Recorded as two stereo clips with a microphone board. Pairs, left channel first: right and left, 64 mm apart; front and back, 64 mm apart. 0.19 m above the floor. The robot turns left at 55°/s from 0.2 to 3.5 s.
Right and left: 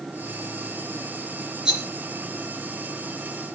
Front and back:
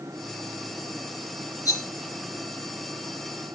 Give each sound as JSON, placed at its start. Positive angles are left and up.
{"t": 1.6, "sound": "a rattle", "azimuth_deg": 10, "distance_m": 3.5}